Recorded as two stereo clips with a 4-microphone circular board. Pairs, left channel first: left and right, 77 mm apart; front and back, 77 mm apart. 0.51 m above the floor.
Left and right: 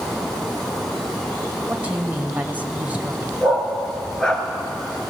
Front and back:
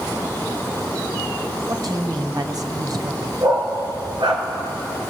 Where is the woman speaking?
160° right, 2.5 m.